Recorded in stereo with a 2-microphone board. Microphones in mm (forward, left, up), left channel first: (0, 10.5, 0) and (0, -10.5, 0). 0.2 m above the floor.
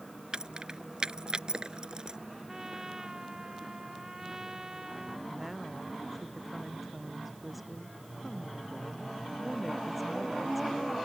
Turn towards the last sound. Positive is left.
turn(degrees=-5)  # may be behind; listen again after turning